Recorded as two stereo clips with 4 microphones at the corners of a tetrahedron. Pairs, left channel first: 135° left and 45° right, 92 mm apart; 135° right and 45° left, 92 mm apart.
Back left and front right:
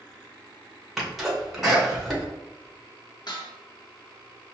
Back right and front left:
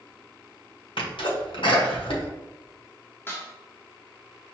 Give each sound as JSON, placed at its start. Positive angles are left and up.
{"t": 1.0, "sound": "a sneeze", "azimuth_deg": -135, "distance_m": 1.4}
{"t": 3.3, "sound": "dishes clattering", "azimuth_deg": 165, "distance_m": 1.0}